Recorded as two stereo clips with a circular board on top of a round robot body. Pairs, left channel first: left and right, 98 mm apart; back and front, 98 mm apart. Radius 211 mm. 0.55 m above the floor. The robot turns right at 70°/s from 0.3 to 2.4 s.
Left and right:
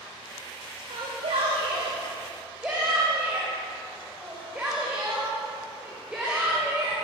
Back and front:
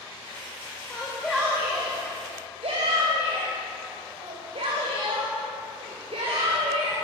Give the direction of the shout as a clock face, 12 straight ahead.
4 o'clock.